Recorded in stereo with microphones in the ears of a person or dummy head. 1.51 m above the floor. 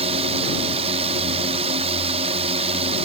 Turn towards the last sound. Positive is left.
turn(degrees=-35)  # may be behind; listen again after turning